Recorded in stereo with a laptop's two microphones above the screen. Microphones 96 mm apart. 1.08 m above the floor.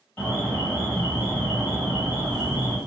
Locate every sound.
0.2 s an alarm: 10° left (ahead or behind), 1.5 m